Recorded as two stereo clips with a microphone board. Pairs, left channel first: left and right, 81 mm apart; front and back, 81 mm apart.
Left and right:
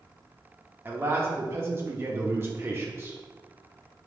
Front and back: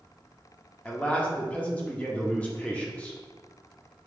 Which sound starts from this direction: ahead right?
A man speaking, at 0.8 s.